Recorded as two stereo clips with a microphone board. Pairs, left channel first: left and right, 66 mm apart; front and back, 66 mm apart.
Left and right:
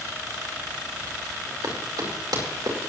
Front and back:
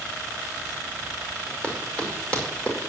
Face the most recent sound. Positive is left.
turn(degrees=-75)